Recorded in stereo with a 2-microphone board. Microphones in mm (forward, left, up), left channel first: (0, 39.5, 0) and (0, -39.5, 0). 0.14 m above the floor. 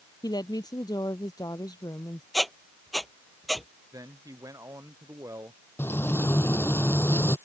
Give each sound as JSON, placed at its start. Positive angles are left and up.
{"t": 0.2, "sound": "a woman speaking", "side_deg": 55}
{"t": 2.3, "sound": "a squeak", "side_deg": 0}
{"t": 3.9, "sound": "a man speaking", "side_deg": -45}
{"t": 5.8, "sound": "frying", "side_deg": 30}